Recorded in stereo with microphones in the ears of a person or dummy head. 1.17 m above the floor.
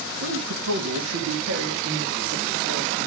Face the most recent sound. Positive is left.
turn(degrees=-65)  # may be behind; listen again after turning